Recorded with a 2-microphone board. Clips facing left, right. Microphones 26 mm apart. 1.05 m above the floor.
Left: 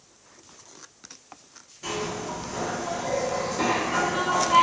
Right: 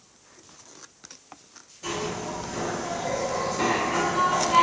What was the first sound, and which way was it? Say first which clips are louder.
A zipper: even; 10° left (ahead or behind).